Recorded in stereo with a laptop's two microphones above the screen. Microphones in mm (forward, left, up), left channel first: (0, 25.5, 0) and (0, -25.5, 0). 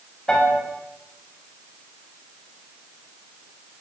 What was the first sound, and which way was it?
A piano, 15° left (ahead or behind).